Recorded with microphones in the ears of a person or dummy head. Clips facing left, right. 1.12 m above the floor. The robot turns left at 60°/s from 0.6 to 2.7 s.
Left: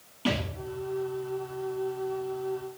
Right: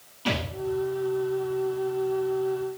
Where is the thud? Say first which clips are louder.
Even; 40° left (ahead or behind), 4 m.